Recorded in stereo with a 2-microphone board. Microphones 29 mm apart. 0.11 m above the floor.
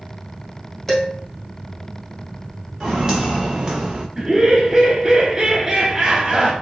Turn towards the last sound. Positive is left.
turn(degrees=-25)  # may be behind; listen again after turning